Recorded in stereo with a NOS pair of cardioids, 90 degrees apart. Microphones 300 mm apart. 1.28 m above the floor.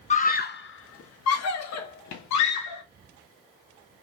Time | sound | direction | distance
0.1 | a scream | 25° left | 1.1 m